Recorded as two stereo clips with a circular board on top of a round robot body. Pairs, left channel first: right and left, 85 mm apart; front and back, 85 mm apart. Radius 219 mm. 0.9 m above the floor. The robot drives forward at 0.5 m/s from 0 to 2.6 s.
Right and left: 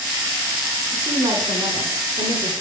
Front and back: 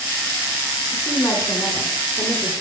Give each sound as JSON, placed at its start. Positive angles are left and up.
{"t": 0.9, "sound": "a woman speaking", "azimuth_deg": 50, "distance_m": 4.5}